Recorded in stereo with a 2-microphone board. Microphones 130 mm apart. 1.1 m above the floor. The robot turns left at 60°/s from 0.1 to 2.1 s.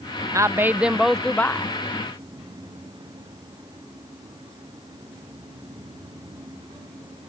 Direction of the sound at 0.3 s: 135° right.